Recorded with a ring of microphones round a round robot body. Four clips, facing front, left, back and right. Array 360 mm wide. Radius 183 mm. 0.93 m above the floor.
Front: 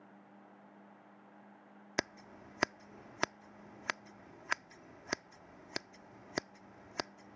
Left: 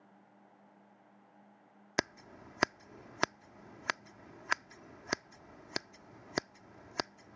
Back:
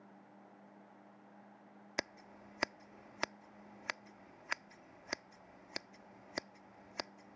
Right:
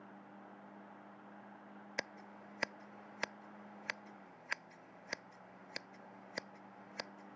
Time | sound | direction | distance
2.0 | scissors | 65° left | ?